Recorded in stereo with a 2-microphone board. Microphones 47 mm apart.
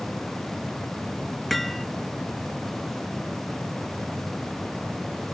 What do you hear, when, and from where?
1.5 s hammering: 5° left (ahead or behind)